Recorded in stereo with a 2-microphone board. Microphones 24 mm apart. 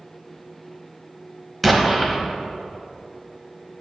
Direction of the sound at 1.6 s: Centre (ahead or behind).